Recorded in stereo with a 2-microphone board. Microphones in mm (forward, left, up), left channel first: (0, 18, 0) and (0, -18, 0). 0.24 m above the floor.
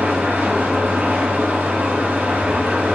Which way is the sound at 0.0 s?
75° right (ahead or behind).